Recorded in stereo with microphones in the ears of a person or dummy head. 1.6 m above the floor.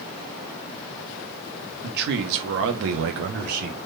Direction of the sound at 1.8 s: 55° right (ahead or behind).